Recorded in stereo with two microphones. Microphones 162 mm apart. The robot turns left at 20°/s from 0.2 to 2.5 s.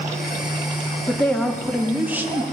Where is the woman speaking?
10° left (ahead or behind), 1.4 m; by 2.4 s 15° right (ahead or behind), 1.4 m.